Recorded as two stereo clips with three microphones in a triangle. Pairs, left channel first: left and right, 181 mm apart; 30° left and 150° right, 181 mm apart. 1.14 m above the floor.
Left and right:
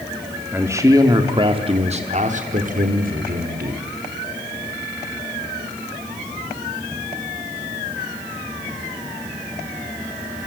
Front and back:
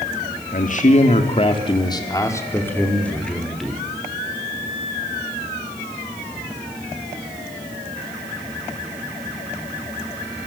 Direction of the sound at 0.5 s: 10° right.